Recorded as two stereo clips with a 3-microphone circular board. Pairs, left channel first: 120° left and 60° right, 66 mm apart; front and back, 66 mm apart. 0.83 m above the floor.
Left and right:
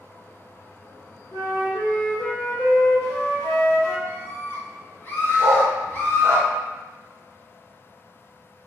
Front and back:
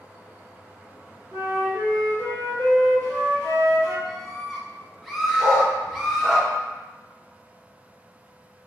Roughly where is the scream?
Left.